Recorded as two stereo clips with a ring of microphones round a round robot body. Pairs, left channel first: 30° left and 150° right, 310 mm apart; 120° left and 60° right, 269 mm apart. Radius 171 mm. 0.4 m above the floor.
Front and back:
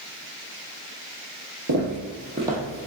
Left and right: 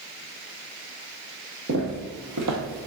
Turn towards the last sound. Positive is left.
turn(degrees=-45)